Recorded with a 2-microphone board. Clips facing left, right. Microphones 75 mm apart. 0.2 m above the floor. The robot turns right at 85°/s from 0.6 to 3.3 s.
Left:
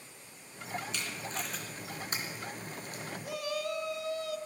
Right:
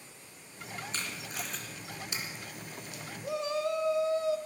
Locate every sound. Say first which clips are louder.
0.9 s tape being pulled: left 1 dB; 40° right (ahead or behind), 3 m; by 3.0 s 40° left (ahead or behind), 3 m
3.2 s a shout: right 5 dB; 25° right (ahead or behind), 1.0 m